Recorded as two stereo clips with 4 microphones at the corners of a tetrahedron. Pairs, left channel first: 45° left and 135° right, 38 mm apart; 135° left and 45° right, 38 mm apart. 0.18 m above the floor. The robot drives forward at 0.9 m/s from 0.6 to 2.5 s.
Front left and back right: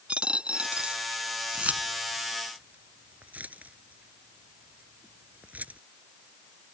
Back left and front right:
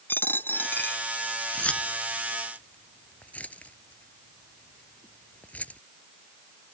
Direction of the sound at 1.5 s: 175° right.